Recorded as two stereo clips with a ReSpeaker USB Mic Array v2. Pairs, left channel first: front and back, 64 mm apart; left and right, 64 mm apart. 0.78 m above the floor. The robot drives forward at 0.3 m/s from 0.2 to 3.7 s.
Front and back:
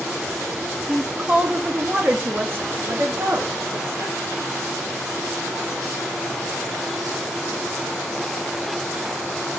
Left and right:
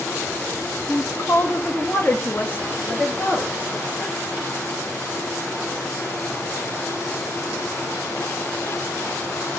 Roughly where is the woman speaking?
Left.